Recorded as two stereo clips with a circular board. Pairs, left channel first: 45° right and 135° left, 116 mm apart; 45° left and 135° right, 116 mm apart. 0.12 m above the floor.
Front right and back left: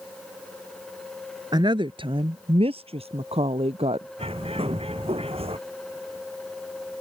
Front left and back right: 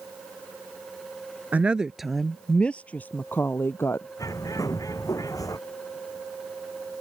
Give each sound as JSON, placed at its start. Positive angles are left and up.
{"t": 1.5, "sound": "a woman speaking", "azimuth_deg": 155}
{"t": 4.2, "sound": "a bird", "azimuth_deg": 105}